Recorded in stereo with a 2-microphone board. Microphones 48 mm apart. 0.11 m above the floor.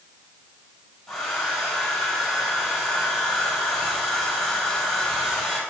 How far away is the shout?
I don't hear a shout.